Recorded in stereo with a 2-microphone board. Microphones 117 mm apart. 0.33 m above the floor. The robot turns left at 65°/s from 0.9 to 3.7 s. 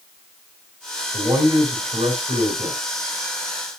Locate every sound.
1.1 s a man speaking: 35° right, 4.5 m; by 2.8 s 145° right, 4.5 m